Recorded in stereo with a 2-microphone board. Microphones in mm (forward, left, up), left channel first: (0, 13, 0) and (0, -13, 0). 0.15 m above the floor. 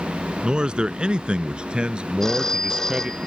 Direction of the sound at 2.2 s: 15° left (ahead or behind).